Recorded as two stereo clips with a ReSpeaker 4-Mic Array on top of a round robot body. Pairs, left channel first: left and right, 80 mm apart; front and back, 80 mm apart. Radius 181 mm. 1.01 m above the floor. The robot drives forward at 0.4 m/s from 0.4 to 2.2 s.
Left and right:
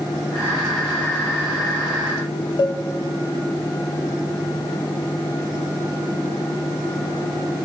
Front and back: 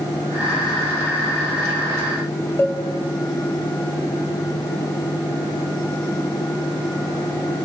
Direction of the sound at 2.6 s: 65° left.